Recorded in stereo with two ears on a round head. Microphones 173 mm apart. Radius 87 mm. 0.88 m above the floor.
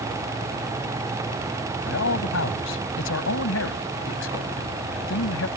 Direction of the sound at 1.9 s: 85° left.